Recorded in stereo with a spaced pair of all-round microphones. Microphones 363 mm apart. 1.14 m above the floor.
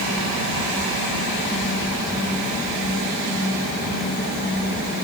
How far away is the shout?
No shout in this recording.